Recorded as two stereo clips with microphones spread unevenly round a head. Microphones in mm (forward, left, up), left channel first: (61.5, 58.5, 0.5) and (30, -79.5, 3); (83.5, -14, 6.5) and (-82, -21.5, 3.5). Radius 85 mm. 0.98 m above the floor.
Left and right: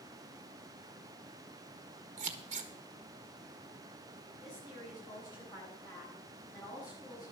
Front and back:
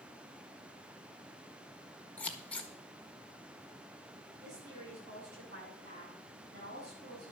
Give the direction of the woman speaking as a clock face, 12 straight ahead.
7 o'clock.